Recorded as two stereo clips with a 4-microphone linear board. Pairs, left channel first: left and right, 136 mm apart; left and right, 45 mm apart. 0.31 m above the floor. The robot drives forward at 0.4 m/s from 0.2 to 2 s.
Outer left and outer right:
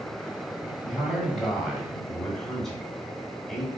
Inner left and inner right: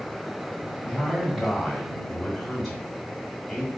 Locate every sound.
0.8 s a man speaking: 5° left (ahead or behind), 1.2 m; by 3.7 s centre (ahead or behind), 1.5 m